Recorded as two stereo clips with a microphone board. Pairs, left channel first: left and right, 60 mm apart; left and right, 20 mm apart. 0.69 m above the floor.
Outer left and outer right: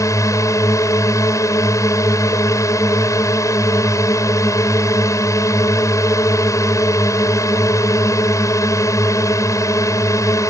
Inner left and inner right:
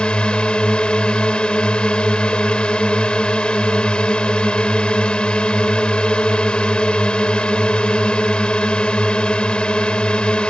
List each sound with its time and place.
0.0 s a drone: 60° left (ahead or behind)